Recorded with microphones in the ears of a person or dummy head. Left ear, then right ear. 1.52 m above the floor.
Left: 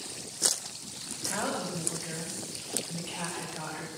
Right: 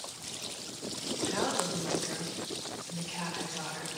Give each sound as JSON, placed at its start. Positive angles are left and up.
{"t": 1.2, "sound": "a woman speaking", "side_deg": 85, "distance_m": 10.0}